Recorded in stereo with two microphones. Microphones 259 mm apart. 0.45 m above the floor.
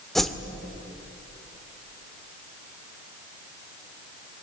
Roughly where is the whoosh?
Centre.